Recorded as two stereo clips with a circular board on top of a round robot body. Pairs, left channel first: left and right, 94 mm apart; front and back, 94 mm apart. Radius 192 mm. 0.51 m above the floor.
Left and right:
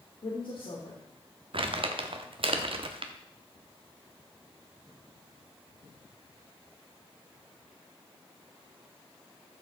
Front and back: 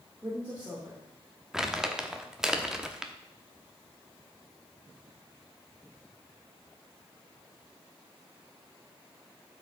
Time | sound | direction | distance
0.2 | a woman speaking | 105° left | 2.5 m
1.5 | crumpling | 95° right | 1.1 m